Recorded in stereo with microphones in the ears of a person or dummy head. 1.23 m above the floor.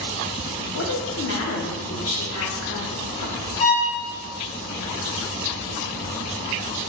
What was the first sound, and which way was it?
A woman speaking, 70° left (ahead or behind).